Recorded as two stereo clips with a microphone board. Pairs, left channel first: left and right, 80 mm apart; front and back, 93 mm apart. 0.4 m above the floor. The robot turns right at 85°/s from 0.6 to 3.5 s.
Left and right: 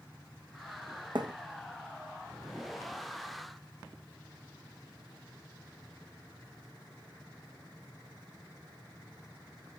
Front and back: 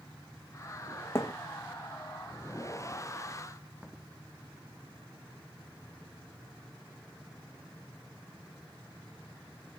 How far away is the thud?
About 1.8 m.